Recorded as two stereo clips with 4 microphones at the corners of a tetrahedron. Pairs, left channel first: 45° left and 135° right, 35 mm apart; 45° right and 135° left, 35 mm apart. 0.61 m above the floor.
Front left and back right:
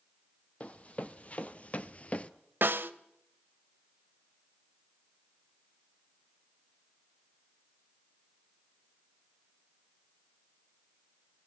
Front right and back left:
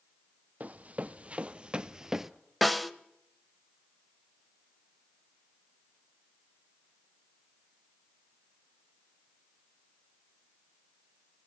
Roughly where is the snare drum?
Behind right.